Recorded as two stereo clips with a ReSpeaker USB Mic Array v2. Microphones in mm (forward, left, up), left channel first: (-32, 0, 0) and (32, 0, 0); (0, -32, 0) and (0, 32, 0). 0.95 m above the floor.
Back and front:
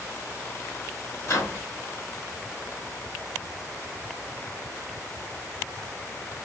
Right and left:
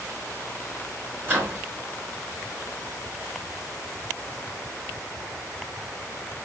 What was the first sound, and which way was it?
A microwave, 150° left.